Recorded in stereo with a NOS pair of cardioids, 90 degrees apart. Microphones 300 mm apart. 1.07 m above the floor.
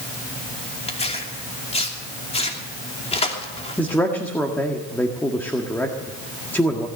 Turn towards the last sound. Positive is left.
turn(degrees=5)